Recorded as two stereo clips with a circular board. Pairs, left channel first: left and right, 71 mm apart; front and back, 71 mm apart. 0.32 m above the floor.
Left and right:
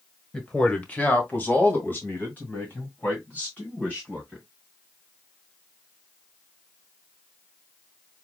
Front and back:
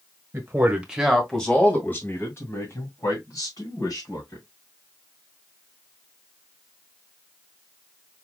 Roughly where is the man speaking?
Behind left.